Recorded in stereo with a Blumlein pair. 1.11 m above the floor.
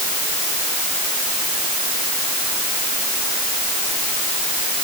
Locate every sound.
Only background noise.